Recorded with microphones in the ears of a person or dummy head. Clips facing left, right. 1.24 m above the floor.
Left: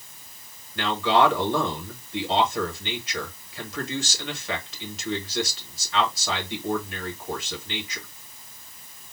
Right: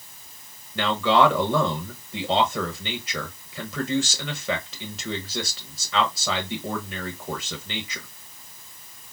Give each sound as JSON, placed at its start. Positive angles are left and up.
{"t": 0.8, "sound": "a man speaking", "side_deg": -80, "distance_m": 1.2}